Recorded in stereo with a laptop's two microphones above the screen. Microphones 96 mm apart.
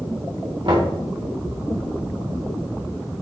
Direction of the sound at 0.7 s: 60° right (ahead or behind).